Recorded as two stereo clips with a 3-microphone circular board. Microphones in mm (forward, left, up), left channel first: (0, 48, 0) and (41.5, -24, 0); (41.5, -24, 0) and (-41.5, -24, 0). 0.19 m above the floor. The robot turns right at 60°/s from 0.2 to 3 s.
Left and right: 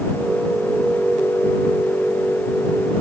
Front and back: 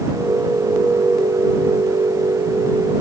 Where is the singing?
No singing in this recording.